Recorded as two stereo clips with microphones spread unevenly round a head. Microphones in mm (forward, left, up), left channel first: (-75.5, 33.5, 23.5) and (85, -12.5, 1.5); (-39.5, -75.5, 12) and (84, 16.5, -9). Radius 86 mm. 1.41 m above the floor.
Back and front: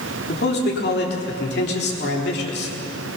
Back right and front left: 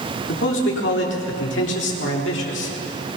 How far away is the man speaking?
About 3.5 m.